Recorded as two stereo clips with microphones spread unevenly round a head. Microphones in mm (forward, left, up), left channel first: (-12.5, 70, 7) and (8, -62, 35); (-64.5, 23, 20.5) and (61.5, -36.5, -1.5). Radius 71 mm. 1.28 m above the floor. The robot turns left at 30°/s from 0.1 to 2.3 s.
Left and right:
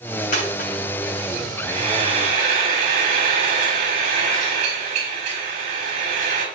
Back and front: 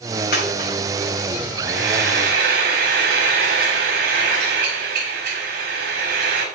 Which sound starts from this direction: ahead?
Frying, at 1.6 s.